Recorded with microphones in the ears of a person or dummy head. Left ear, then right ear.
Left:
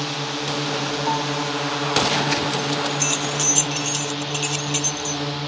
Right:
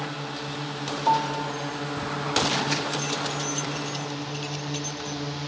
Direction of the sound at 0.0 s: 70° left (ahead or behind).